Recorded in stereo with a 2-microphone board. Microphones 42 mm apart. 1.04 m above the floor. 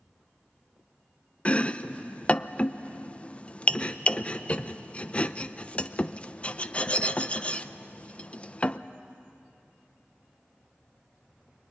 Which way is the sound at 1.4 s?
30° left (ahead or behind).